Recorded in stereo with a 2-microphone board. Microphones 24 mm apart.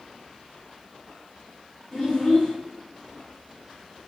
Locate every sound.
1.9 s a child speaking: 20° left (ahead or behind), 0.9 m